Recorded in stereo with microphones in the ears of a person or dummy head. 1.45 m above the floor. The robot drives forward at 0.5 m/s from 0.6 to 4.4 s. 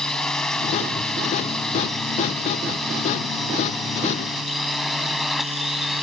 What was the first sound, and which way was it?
A drone, 5° left (ahead or behind).